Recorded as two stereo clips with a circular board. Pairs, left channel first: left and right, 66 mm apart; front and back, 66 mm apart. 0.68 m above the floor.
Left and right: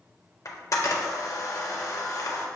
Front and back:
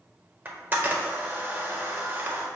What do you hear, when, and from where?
0.5 s a camera shutter: 120° left, 0.6 m